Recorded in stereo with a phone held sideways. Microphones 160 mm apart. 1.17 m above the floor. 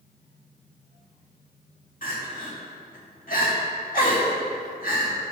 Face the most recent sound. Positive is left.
turn(degrees=60)  # may be behind; listen again after turning